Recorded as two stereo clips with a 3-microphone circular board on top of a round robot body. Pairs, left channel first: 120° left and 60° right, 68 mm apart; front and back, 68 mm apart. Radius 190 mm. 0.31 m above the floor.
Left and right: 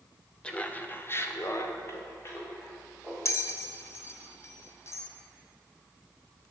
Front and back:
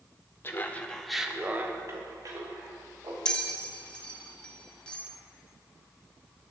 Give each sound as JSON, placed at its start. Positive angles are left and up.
{"t": 0.4, "sound": "laughter", "azimuth_deg": 50, "distance_m": 1.9}
{"t": 3.2, "sound": "a bell", "azimuth_deg": 75, "distance_m": 1.4}